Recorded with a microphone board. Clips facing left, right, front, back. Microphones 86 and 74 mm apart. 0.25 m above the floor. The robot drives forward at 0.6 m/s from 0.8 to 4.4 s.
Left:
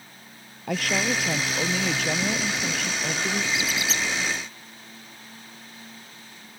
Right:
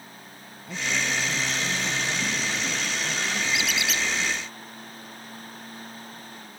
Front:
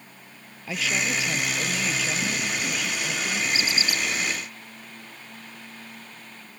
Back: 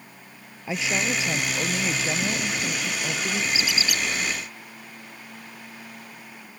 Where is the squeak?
40° left; by 4.0 s 50° left.